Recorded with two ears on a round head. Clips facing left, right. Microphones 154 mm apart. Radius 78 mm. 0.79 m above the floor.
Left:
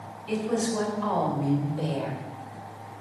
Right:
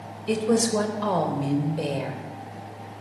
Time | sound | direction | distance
0.3 | a woman speaking | 65° right (ahead or behind) | 3.5 m